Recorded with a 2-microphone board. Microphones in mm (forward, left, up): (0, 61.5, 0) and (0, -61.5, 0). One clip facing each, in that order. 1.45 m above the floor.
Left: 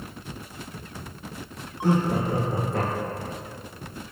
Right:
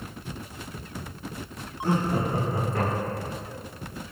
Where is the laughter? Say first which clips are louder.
Left 2 dB; 85° left, 1.1 m; by 3.4 s 70° left (ahead or behind), 1.8 m.